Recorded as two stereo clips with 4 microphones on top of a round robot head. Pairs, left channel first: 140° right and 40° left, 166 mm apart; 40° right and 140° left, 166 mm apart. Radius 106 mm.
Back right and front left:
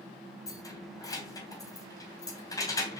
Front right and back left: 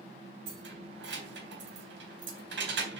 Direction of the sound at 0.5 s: 150° left.